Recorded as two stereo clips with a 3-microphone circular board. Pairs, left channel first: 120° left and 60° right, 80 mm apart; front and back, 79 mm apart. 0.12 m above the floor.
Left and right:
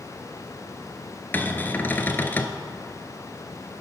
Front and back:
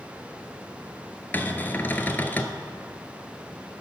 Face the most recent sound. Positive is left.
turn(degrees=60)